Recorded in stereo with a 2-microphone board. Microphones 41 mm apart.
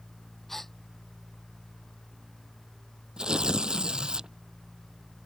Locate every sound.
0.5 s a gasp: 5° left (ahead or behind)
3.2 s tearing paper: 20° right (ahead or behind)